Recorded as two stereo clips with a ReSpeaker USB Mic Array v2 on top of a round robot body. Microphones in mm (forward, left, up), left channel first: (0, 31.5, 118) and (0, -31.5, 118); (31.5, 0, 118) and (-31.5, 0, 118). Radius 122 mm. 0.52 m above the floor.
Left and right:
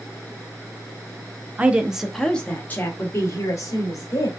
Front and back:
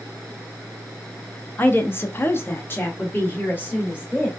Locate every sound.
1.6 s a woman speaking: 40° right, 1.0 m; by 4.3 s 65° left, 1.9 m